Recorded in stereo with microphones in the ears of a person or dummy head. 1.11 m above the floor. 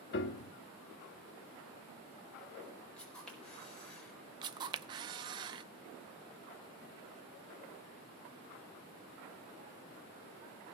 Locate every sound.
0.1 s a piano: 55° left (ahead or behind), 0.9 m
3.0 s a camera shutter: 5° left (ahead or behind), 4 m
4.4 s a camera shutter: 25° right (ahead or behind), 0.6 m